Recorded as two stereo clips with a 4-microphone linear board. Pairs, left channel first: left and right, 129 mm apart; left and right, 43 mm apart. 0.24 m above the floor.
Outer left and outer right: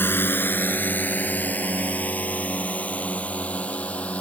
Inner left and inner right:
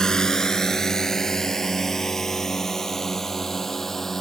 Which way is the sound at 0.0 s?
15° left (ahead or behind).